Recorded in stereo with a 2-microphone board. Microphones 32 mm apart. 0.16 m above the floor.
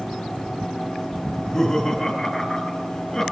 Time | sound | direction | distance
1.3 | laughter | 15° left (ahead or behind) | 2.0 m